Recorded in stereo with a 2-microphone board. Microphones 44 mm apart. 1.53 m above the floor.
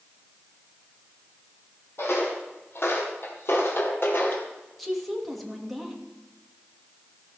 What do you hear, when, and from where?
2.0 s footsteps: 65° left (ahead or behind), 3.5 m; by 4.5 s 55° left (ahead or behind), 2.5 m
4.8 s a woman speaking: centre (ahead or behind), 2.5 m